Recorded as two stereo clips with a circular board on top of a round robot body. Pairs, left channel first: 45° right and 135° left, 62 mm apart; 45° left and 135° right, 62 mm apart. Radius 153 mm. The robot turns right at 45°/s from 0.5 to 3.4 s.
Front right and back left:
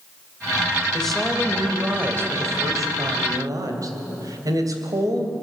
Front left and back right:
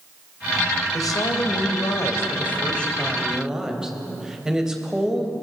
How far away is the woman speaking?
About 3 m.